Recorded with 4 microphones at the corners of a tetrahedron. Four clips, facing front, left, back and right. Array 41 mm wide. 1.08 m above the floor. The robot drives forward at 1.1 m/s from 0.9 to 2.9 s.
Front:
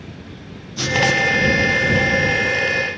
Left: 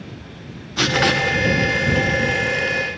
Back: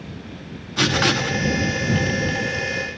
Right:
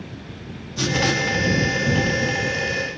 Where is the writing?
130° left, 0.6 m; by 1.4 s 155° left, 1.0 m.